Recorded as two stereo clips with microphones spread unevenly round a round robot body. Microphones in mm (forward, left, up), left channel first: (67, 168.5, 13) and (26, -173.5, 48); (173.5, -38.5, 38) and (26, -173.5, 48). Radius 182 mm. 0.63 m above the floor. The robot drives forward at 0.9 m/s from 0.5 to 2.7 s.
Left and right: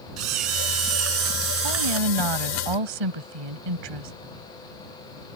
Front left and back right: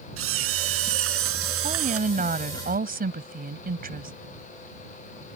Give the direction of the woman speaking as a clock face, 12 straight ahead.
3 o'clock.